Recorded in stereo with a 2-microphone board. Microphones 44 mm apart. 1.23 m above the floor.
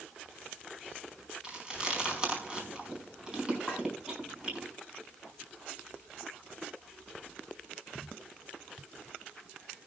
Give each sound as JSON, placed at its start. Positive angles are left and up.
{"t": 1.4, "sound": "chewing", "side_deg": -20, "distance_m": 4.5}
{"t": 3.7, "sound": "a clink", "side_deg": -5, "distance_m": 8.0}